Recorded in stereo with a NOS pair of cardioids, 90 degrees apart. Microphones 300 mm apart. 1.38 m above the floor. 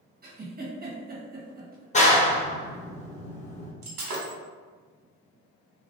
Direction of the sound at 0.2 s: 30° right.